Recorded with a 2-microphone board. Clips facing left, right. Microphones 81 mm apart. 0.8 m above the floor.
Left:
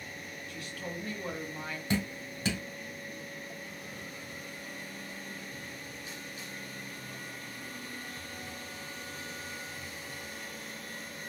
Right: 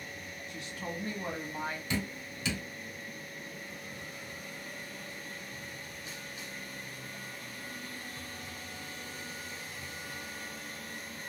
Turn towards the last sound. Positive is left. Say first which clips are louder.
# left 3 dB
turn(degrees=40)  # may be behind; listen again after turning